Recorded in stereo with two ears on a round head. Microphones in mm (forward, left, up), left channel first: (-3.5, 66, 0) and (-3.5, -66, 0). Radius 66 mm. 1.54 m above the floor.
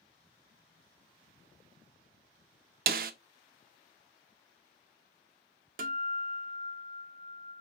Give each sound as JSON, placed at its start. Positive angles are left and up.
{"t": 2.9, "sound": "a snare drum", "side_deg": -65, "distance_m": 0.8}
{"t": 5.8, "sound": "a guitar", "side_deg": -60, "distance_m": 0.9}